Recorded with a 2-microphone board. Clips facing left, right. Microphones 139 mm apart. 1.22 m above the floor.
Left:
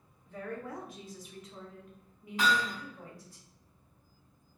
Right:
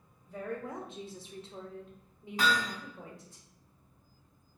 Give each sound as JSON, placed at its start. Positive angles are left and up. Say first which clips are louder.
{"t": 0.2, "sound": "a woman speaking", "louder": "right 2 dB", "side_deg": -10, "distance_m": 0.7}
{"t": 2.4, "sound": "hammering", "louder": "left 1 dB", "side_deg": -40, "distance_m": 1.9}